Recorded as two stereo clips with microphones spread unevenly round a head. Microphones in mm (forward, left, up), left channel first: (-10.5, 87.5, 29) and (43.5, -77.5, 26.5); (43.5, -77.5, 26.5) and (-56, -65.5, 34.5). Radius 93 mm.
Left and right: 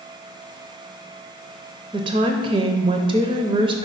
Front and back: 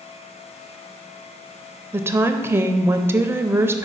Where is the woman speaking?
130° right, 0.5 m.